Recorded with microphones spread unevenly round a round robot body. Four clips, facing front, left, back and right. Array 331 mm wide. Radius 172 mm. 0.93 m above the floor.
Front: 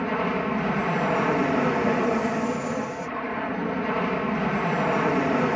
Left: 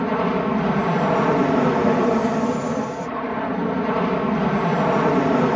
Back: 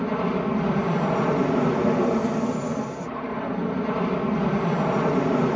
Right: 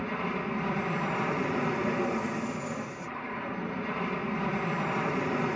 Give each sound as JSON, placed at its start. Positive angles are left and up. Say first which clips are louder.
{"t": 0.0, "sound": "an aircraft", "louder": "left 12 dB, back 1 dB", "azimuth_deg": 100}